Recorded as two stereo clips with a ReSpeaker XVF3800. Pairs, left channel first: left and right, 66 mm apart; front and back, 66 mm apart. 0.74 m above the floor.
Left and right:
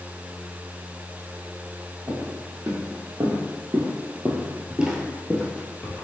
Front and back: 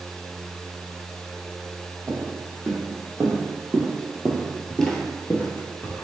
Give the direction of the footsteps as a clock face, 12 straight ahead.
4 o'clock.